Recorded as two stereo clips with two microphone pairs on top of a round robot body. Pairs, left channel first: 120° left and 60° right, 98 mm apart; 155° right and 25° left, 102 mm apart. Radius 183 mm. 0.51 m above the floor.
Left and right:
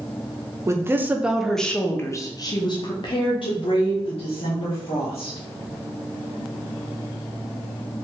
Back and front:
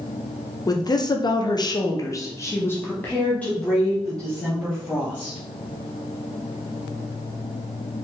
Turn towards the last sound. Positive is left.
turn(degrees=120)